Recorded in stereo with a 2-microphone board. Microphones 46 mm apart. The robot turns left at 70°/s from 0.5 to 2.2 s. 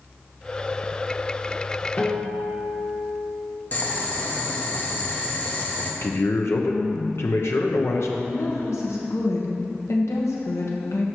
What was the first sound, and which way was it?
A guitar, 35° left (ahead or behind).